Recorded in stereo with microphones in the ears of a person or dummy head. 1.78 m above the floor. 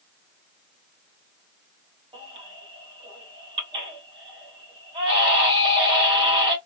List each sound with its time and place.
2.1 s a baby crying: 30° right (ahead or behind), 3 m